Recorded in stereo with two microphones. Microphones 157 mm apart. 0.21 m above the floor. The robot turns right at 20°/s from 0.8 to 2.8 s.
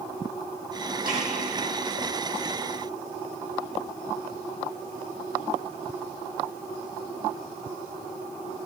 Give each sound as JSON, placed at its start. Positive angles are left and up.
{"t": 1.1, "sound": "a snare drum", "side_deg": -70, "distance_m": 4.5}